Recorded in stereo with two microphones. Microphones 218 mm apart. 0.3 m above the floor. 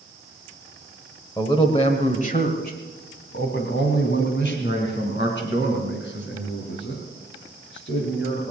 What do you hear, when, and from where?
1.4 s a man speaking: 15° left (ahead or behind), 1.3 m; by 8.5 s 60° left (ahead or behind), 6 m